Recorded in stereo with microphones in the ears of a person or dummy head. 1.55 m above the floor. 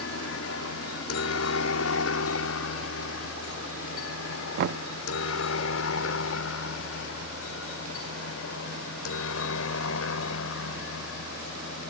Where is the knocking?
55° right (ahead or behind).